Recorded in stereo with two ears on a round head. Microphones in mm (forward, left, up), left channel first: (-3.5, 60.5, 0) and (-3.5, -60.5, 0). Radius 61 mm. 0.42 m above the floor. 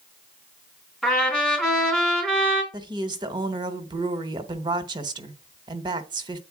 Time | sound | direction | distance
1.0 | a trumpet | 5° left (ahead or behind) | 3.5 m
2.7 | a woman speaking | 35° right (ahead or behind) | 1.0 m